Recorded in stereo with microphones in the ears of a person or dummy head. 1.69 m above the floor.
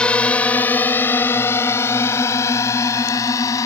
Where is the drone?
10° left (ahead or behind); by 3.7 s 20° left (ahead or behind).